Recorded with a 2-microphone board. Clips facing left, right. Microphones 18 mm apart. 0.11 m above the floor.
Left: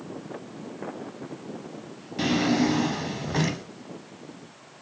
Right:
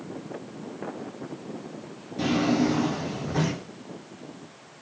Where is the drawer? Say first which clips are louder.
Even; 25° left (ahead or behind), 1.0 m.